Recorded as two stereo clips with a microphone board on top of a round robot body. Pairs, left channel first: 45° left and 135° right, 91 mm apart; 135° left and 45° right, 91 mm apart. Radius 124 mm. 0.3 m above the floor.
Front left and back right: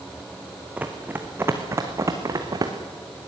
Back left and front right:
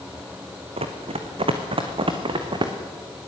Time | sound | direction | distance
0.8 | running footsteps | 60° right | 2.5 m